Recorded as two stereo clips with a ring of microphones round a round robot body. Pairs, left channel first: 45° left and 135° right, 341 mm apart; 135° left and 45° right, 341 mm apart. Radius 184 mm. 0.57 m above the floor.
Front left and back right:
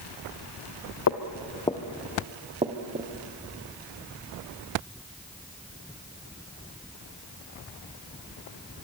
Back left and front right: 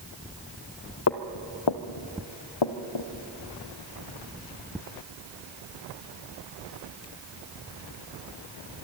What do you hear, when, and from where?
1.1 s footsteps: 90° left, 1.0 m; by 3.1 s 160° left, 2 m